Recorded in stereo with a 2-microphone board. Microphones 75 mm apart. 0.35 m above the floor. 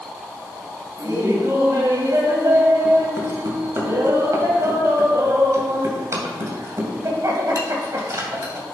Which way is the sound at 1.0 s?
45° right (ahead or behind).